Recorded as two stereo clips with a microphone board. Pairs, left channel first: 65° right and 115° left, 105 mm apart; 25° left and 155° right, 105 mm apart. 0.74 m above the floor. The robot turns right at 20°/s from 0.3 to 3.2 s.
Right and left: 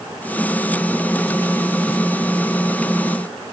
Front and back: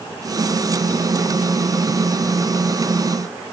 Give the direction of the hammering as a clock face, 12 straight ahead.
No hammering in this recording.